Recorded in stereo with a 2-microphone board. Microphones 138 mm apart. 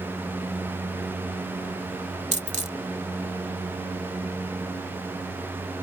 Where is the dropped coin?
60° right (ahead or behind).